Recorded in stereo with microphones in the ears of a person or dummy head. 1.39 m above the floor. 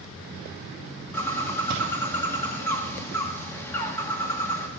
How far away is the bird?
About 1.5 m.